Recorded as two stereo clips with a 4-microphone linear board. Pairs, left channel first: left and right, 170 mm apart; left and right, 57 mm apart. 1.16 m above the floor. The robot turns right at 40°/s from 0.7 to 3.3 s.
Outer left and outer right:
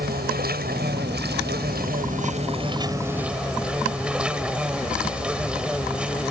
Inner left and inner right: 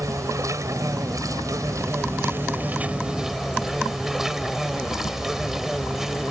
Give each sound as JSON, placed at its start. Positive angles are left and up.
{"t": 0.0, "sound": "an insect", "azimuth_deg": -110}